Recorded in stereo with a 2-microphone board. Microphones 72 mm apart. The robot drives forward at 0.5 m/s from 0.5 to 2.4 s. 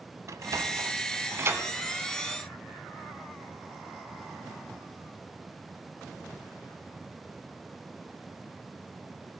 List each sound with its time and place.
0.3 s a sliding door: 50° right (ahead or behind), 0.7 m; by 1.7 s 35° right (ahead or behind), 1.0 m